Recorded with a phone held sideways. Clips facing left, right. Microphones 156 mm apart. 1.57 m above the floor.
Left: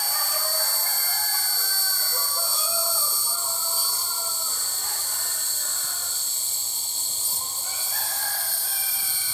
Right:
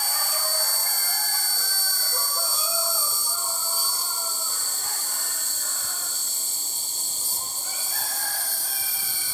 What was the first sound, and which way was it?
An insect, 50° right (ahead or behind).